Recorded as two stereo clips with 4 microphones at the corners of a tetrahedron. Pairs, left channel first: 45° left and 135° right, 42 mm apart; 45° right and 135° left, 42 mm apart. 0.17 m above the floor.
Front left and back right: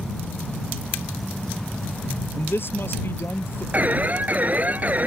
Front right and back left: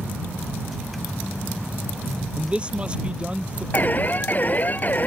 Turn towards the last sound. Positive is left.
turn(degrees=-90)